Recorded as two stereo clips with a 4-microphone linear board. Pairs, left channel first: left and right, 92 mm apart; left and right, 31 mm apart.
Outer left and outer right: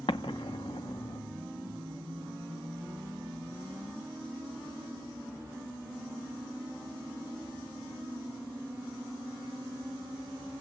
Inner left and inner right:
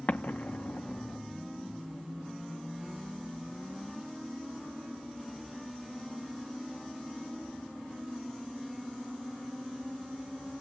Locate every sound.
0.1 s an explosion: 65° left (ahead or behind), 0.7 m